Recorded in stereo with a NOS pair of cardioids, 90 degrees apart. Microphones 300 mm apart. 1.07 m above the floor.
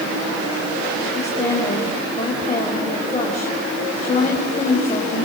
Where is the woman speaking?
20° left, 5.5 m.